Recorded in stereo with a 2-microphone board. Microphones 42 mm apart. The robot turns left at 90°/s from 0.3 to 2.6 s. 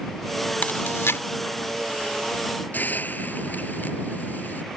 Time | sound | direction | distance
0.6 | chewing | 45° left (ahead or behind) | ?
2.7 | a hiss | 40° left (ahead or behind) | ?